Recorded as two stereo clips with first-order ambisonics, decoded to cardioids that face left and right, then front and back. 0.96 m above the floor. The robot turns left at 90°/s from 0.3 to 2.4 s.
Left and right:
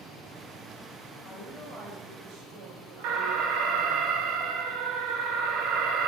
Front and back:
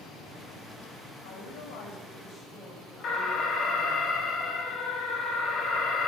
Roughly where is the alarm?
Ahead right.